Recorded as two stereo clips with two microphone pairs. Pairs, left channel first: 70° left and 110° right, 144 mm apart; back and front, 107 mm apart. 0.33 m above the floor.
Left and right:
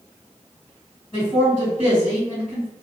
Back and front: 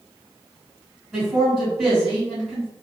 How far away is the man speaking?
About 1.9 m.